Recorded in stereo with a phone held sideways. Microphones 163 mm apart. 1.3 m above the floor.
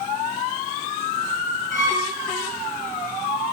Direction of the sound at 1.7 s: 55° right (ahead or behind).